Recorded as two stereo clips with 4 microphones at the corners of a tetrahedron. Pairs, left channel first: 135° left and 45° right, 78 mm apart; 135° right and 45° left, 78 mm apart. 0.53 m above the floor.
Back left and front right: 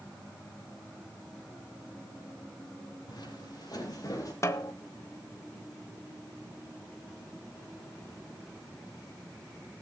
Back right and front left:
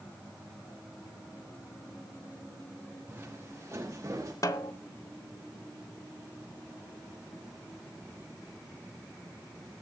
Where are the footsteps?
110° left, 6 m; by 4.3 s 90° left, 6.5 m.